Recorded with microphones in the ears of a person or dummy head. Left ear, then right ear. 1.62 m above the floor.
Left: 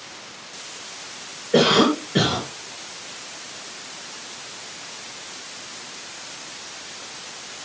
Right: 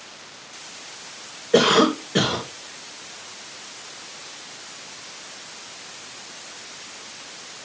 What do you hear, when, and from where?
1.5 s a cough: 35° right (ahead or behind), 1.5 m